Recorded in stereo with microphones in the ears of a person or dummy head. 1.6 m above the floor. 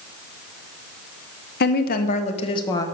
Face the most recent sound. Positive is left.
turn(degrees=20)  # may be behind; listen again after turning